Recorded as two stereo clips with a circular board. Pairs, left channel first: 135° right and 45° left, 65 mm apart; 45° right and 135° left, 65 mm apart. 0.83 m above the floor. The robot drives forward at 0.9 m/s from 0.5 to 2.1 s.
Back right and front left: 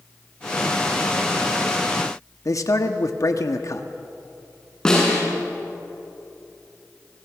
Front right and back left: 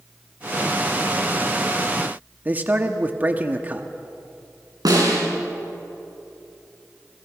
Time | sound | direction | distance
2.5 | a man speaking | 160° right | 1.3 m
4.8 | a snare drum | 145° left | 7.5 m